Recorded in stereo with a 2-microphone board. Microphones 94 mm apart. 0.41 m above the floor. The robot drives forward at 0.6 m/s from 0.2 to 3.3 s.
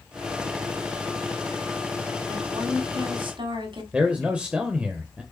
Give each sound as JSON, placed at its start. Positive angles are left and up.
{"t": 2.3, "sound": "a woman speaking", "side_deg": -50, "distance_m": 3.0}
{"t": 3.9, "sound": "a man speaking", "side_deg": -10, "distance_m": 1.3}